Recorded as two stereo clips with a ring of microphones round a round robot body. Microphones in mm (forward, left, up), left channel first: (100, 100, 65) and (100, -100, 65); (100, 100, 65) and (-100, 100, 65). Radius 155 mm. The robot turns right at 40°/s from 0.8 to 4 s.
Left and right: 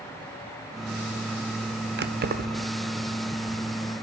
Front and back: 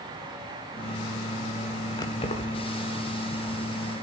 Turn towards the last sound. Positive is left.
turn(degrees=10)